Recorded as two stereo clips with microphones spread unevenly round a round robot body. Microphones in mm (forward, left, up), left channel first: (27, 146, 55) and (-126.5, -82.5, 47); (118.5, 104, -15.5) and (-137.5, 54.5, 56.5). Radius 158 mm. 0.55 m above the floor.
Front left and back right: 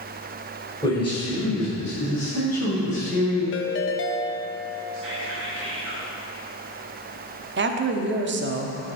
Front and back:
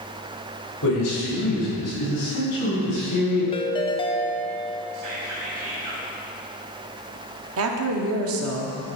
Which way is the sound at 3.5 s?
50° left.